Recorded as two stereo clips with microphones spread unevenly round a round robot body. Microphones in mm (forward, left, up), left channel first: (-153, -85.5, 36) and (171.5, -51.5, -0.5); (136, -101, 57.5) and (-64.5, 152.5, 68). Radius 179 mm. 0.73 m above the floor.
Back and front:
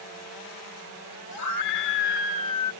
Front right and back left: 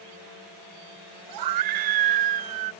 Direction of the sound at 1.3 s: 140° left.